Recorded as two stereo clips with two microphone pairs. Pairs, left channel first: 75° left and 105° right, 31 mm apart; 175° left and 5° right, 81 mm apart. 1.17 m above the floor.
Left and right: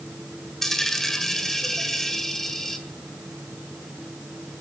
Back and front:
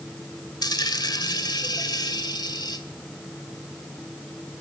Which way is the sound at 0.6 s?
150° left.